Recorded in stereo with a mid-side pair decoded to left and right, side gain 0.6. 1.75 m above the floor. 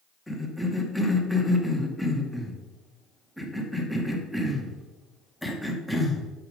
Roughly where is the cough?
Ahead.